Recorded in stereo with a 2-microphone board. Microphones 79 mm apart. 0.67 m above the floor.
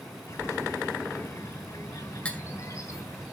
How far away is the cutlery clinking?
About 1.1 m.